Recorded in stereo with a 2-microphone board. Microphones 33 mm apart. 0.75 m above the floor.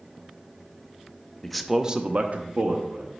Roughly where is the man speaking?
Centre.